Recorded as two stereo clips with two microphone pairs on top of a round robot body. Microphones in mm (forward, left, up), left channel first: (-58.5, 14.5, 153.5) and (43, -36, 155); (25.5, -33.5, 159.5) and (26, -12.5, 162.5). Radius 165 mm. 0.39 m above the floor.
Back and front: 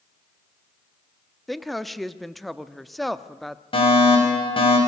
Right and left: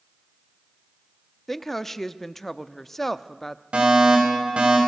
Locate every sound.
1.5 s a woman speaking: 120° right, 1.0 m
3.7 s a fire alarm: 120° left, 6 m